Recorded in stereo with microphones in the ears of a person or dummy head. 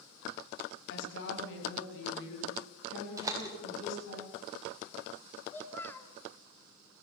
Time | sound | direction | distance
0.9 | a woman speaking | 70° left (ahead or behind) | 8 m
3.2 | a door slam | 20° right (ahead or behind) | 4.5 m
5.5 | a child speaking | 15° left (ahead or behind) | 2.5 m